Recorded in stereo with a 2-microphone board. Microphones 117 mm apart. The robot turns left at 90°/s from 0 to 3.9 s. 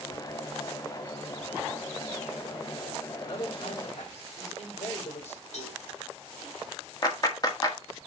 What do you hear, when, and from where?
3.2 s a man speaking: 150° left, 4.5 m; by 5.4 s 90° left, 4.5 m
5.5 s a cowbell: 80° left, 3 m
7.0 s a clap: 35° left (ahead or behind), 1.7 m